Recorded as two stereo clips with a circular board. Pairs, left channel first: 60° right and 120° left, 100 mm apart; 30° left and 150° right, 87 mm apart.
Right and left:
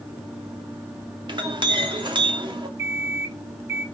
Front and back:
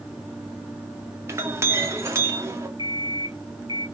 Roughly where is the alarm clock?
Behind.